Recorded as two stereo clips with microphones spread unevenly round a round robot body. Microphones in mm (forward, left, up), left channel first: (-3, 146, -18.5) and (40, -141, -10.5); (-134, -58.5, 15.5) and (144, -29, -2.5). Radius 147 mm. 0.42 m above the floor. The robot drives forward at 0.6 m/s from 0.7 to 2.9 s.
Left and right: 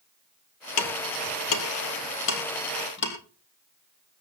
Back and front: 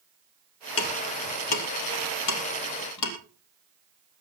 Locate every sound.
0.8 s ticking: 140° left, 2 m; by 3.1 s 155° left, 3 m